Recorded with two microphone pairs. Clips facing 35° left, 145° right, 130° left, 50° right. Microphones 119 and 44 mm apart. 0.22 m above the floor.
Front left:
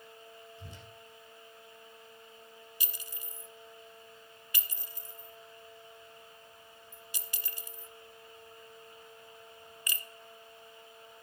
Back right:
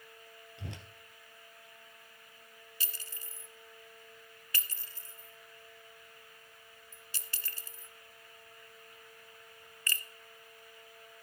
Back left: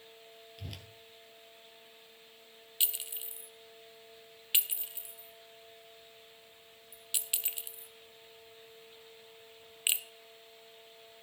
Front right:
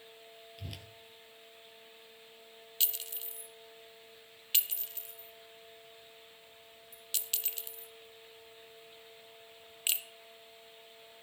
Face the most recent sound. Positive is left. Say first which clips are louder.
# back right 1 dB, back left 1 dB
turn(degrees=80)